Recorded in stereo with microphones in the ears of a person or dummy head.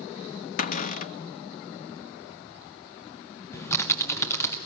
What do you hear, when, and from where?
0.6 s a cupboard door: 50° left (ahead or behind), 0.5 m
3.5 s typing on a keyboard: 20° left (ahead or behind), 1.2 m